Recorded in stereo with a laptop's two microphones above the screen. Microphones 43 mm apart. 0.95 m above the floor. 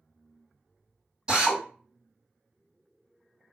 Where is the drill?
25° right (ahead or behind), 1.8 m.